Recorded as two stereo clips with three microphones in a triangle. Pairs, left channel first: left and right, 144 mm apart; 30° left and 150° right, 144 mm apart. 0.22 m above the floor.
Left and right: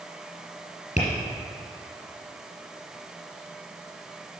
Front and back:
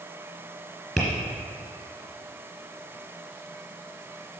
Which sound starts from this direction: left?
Tapping, at 1.0 s.